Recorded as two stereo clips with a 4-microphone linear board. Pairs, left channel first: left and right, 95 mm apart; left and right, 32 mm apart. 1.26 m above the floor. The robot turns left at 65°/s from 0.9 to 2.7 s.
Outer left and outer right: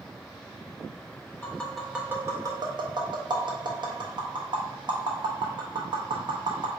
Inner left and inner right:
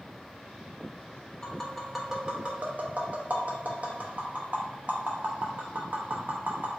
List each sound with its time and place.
1.4 s tapping: 20° left (ahead or behind), 0.9 m; by 6.7 s 50° right (ahead or behind), 0.9 m